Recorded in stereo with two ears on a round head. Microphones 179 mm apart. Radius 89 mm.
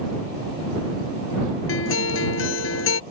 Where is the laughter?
I don't hear laughter.